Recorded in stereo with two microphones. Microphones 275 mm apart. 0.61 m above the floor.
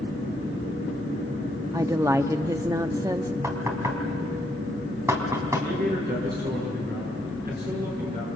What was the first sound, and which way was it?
A woman speaking, 10° right (ahead or behind).